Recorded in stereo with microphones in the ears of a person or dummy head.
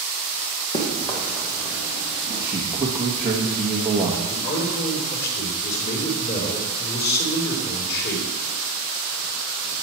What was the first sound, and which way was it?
Running footsteps, 30° left (ahead or behind).